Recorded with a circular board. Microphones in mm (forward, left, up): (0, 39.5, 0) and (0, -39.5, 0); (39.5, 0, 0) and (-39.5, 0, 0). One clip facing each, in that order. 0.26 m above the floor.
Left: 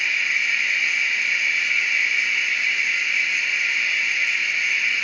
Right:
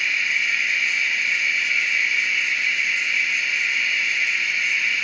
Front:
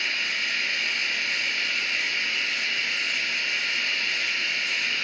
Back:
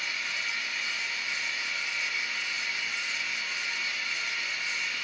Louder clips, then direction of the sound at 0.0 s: Even, front 4 dB; straight ahead.